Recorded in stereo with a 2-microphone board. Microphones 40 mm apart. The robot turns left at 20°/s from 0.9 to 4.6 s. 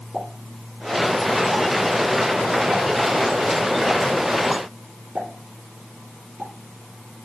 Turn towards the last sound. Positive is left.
turn(degrees=-50)  # may be behind; listen again after turning